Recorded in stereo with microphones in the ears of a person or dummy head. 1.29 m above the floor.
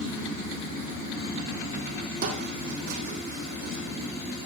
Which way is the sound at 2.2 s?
60° right (ahead or behind).